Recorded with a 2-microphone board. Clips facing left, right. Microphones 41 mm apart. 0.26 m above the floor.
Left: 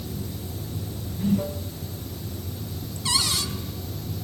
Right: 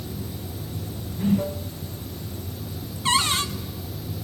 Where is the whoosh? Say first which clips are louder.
Right 2 dB; 20° right (ahead or behind), 0.5 m.